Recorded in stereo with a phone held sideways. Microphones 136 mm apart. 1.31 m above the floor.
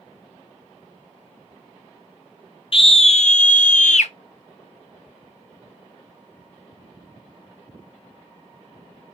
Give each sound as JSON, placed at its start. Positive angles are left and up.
{"t": 2.7, "sound": "a scream", "side_deg": 45, "distance_m": 0.7}